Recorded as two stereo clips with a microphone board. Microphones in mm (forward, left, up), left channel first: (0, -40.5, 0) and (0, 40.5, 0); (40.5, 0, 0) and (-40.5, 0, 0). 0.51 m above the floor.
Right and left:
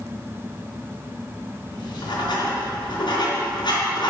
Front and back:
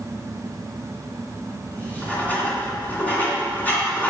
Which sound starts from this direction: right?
Writing, at 1.7 s.